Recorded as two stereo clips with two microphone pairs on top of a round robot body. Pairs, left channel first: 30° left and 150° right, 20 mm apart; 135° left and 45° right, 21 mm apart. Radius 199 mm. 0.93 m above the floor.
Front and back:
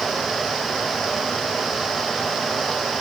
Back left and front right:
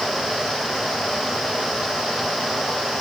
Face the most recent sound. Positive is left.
No sound to turn to.